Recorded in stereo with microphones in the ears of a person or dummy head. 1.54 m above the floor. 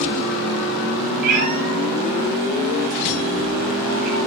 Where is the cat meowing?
50° right (ahead or behind), 7.5 m.